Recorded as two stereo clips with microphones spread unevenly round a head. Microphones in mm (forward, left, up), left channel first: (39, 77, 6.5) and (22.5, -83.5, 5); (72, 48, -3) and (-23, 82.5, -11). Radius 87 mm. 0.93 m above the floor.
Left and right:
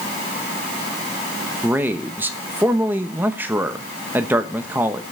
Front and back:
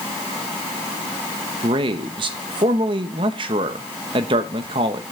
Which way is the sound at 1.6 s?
170° right.